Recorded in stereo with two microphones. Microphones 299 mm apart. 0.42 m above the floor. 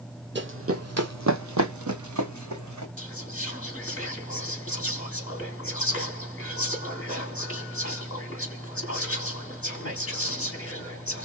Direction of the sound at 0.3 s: 35° right (ahead or behind).